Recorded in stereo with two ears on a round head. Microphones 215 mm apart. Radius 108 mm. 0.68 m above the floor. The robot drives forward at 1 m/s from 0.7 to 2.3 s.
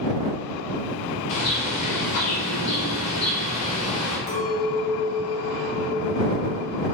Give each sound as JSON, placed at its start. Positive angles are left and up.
{"t": 1.3, "sound": "a bird", "side_deg": 75, "distance_m": 3.0}
{"t": 4.3, "sound": "a clink", "side_deg": 30, "distance_m": 2.5}